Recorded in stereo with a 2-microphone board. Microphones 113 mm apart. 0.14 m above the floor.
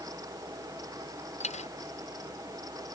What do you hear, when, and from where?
1.4 s a dropped coin: 80° left